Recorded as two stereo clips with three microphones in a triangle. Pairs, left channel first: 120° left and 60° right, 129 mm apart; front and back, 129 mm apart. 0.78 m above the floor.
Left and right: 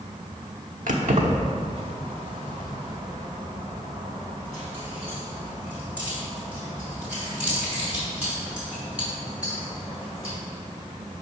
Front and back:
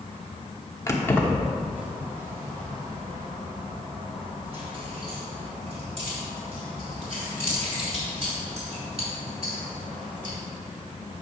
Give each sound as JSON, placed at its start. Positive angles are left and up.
{"t": 0.9, "sound": "keys jangling", "azimuth_deg": -65, "distance_m": 1.0}